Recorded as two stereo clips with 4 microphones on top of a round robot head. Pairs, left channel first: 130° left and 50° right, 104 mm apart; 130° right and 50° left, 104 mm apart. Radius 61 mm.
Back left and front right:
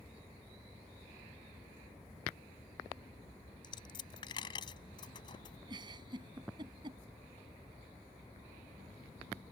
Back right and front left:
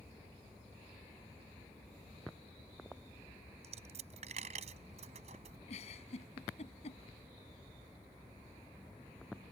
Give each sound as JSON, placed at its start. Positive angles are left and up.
{"t": 3.6, "sound": "a dropped coin", "azimuth_deg": 80}
{"t": 5.7, "sound": "a giggle", "azimuth_deg": -100}